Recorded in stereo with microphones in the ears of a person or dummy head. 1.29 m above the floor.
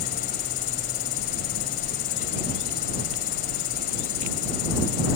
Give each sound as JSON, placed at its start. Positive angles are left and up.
{"t": 0.0, "sound": "an insect", "side_deg": 45}